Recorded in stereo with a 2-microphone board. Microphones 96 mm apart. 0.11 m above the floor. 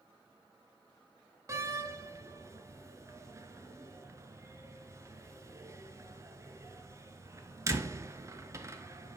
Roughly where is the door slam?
Right.